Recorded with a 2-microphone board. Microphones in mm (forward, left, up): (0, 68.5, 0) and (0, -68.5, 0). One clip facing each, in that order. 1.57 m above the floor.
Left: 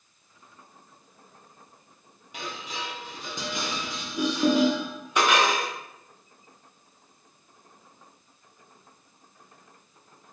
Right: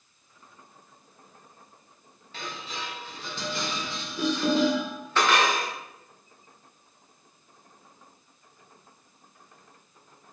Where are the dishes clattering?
15° left (ahead or behind), 0.7 m.